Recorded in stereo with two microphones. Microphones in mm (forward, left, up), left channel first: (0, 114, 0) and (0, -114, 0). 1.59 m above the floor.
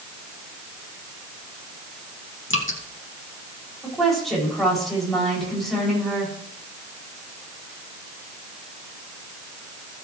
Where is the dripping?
60° left (ahead or behind), 2.5 m.